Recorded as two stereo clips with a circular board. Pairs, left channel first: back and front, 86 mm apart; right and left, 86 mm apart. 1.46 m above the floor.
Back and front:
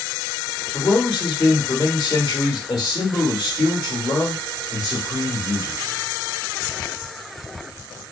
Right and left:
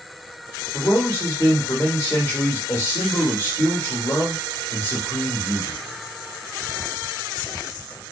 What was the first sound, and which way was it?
A man speaking, 145° right.